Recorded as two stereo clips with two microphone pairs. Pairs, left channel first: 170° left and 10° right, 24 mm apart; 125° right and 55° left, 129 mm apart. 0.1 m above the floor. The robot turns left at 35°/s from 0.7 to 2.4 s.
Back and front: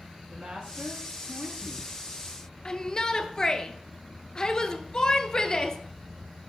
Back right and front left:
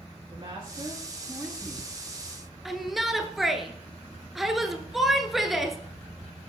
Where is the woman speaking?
10° left, 4.5 m; by 1.9 s 30° right, 4.5 m.